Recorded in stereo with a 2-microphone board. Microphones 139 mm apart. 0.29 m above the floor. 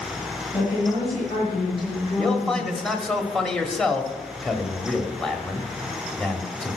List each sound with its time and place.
0.5 s a woman speaking: 35° left (ahead or behind), 6.5 m; by 2.9 s 45° left (ahead or behind), 3.5 m
2.2 s a man speaking: 5° left (ahead or behind), 1.2 m